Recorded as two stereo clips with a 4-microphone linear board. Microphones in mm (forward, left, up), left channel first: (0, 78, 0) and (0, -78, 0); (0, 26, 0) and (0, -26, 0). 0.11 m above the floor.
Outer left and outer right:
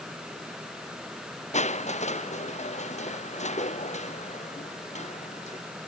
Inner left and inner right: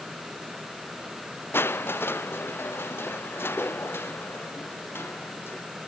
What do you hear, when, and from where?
1.5 s crushing: 45° left (ahead or behind)